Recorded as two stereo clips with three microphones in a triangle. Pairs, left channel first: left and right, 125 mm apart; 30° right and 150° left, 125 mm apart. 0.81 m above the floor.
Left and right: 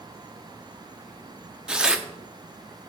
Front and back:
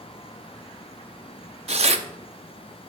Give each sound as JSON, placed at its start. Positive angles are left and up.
{"t": 1.7, "sound": "tearing paper", "azimuth_deg": -175, "distance_m": 0.6}